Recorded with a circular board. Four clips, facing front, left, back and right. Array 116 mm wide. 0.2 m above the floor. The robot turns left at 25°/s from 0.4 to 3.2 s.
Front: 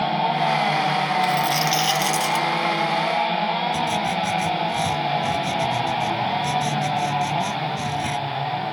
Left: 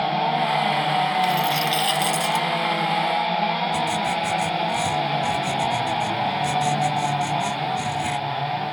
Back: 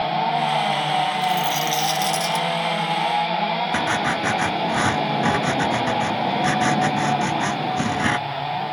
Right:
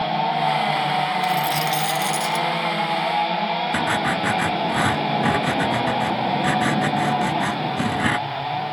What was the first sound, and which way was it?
A dropped coin, 60° left.